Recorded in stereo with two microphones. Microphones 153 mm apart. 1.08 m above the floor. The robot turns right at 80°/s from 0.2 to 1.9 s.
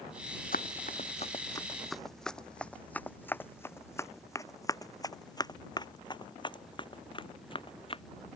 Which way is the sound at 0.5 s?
65° left (ahead or behind).